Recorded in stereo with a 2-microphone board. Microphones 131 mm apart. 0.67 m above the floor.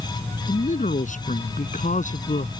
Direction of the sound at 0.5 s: 75° left (ahead or behind).